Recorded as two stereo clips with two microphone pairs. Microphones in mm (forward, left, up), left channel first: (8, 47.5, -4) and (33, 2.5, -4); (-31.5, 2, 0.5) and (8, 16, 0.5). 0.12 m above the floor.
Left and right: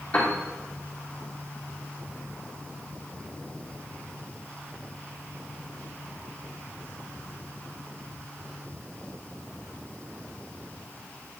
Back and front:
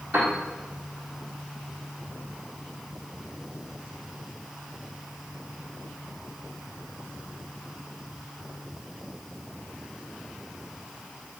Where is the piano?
55° left, 2.5 m.